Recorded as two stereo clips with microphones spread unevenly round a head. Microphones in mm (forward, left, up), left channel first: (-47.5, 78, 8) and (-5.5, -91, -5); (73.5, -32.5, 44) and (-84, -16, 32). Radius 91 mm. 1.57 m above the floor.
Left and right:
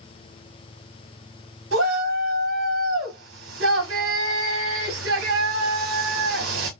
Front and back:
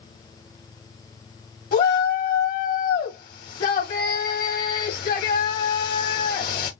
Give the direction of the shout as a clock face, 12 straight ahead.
1 o'clock.